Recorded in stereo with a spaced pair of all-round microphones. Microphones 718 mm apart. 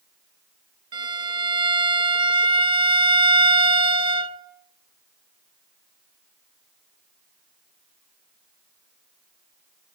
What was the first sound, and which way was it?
A violin, 60° right (ahead or behind).